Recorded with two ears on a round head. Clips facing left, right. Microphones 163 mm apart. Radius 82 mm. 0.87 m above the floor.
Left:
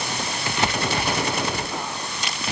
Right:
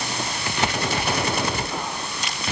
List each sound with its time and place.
Only background noise.